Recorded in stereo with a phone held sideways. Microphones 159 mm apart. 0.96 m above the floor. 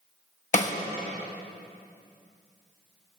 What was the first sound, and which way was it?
A snare drum, 50° left (ahead or behind).